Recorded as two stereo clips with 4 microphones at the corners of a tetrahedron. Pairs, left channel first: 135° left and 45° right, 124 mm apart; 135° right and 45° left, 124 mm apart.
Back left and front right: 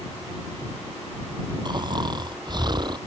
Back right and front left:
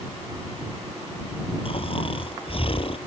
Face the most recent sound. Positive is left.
turn(degrees=-95)